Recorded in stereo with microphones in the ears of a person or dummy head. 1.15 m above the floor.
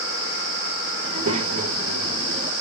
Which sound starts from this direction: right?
A child speaking, at 1.0 s.